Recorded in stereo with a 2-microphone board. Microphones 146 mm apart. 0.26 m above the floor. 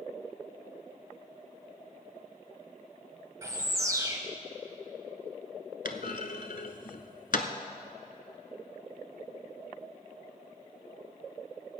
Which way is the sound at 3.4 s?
20° right (ahead or behind).